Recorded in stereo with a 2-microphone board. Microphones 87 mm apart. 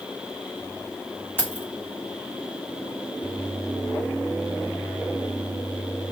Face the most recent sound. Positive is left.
turn(degrees=25)  # may be behind; listen again after turning